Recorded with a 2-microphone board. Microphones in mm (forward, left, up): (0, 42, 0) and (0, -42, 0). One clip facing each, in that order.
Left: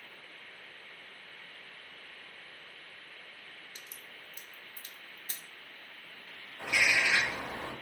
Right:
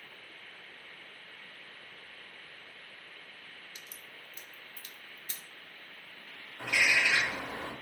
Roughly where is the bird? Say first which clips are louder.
Even; centre.